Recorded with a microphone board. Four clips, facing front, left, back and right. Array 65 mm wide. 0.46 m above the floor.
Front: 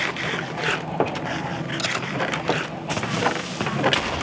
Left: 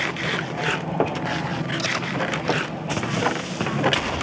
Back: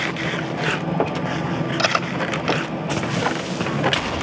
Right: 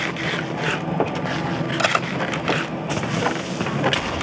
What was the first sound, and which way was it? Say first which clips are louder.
Cutlery clinking: right 6 dB, back 4 dB; 130° right.